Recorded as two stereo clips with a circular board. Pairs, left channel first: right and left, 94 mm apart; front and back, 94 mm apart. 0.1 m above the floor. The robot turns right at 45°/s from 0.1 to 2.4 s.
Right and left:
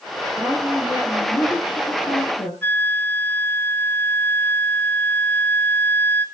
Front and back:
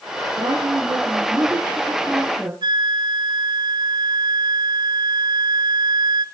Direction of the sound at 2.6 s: 155° right.